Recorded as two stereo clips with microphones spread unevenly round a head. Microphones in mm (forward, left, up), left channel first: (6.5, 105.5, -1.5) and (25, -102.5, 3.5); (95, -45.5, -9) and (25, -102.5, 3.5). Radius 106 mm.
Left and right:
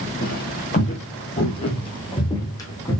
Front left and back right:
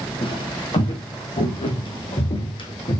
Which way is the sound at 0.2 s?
60° left.